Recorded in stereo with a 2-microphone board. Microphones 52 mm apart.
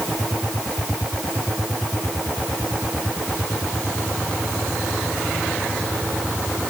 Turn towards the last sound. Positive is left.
No sound to turn to.